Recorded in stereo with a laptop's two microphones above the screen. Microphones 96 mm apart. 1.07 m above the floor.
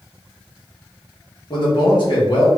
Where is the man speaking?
50° left (ahead or behind), 1.4 m.